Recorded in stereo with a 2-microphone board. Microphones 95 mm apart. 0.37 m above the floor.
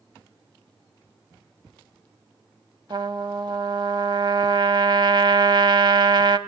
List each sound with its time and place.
2.9 s a trumpet: 55° right (ahead or behind), 0.6 m